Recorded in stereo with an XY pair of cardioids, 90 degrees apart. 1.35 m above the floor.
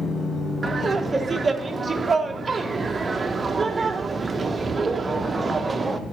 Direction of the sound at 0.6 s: 35° right.